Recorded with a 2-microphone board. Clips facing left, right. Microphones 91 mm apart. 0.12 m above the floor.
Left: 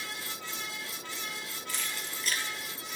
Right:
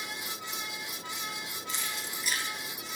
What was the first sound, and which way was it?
Keys jangling, 25° right (ahead or behind).